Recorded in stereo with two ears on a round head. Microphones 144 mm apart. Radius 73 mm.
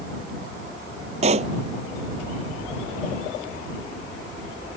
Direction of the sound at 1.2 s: 40° right (ahead or behind).